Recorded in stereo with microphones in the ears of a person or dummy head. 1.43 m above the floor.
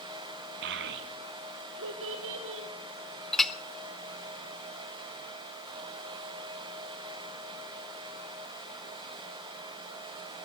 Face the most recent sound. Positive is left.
turn(degrees=5)  # may be behind; listen again after turning